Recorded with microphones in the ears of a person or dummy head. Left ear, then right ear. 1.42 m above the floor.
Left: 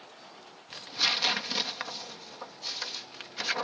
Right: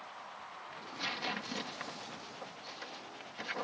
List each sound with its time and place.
0.7 s tearing paper: 45° left (ahead or behind)